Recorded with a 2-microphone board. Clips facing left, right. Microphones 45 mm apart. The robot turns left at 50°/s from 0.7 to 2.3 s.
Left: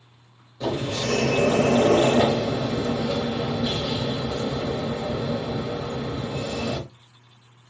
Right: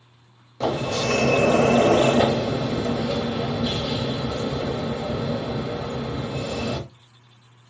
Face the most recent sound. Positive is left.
turn(degrees=-160)